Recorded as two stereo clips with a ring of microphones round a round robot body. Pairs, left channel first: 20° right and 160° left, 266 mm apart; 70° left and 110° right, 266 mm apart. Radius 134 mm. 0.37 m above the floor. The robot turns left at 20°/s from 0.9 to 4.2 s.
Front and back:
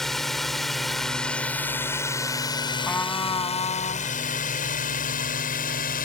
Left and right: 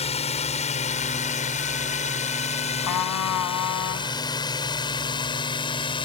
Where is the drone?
65° left; by 6.0 s 10° left.